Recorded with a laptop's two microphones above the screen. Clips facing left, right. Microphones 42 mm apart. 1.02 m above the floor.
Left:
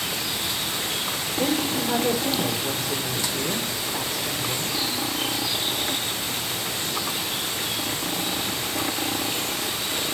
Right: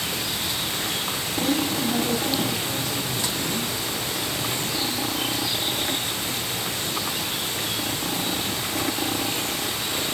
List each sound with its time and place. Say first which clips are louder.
1.4 s a woman speaking: even; 65° left (ahead or behind), 3.5 m